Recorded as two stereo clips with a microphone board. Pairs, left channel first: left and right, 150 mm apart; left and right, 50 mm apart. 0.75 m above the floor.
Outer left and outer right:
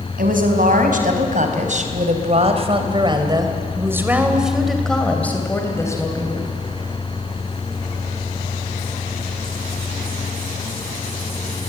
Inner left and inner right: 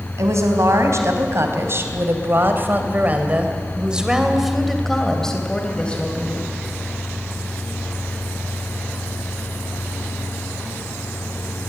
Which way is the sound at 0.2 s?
70° right (ahead or behind).